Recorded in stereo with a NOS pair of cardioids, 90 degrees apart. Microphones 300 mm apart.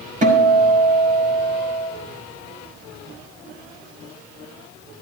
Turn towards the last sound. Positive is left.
turn(degrees=-25)